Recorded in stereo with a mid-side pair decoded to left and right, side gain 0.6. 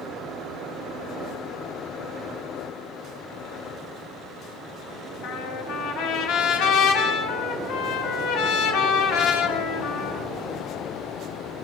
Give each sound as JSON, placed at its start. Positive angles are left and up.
{"t": 5.2, "sound": "a trumpet", "azimuth_deg": 70, "distance_m": 6.5}